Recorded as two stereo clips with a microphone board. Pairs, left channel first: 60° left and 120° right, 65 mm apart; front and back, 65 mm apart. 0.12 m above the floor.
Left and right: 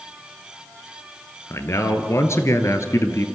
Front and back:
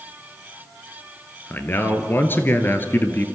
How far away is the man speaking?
About 1.7 m.